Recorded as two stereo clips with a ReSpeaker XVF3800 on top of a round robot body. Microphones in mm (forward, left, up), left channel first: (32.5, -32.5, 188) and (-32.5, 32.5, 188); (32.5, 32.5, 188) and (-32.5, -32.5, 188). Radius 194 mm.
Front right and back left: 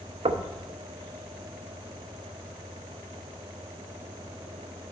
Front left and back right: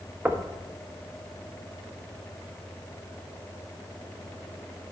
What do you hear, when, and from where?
0.2 s knocking: 155° left, 0.6 m